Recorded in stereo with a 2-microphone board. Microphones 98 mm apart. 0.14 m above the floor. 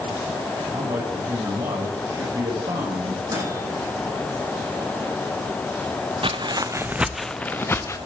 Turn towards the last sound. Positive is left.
turn(degrees=30)  # may be behind; listen again after turning